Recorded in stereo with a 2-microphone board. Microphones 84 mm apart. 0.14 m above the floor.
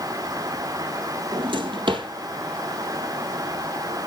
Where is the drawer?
75° right (ahead or behind), 1.7 m.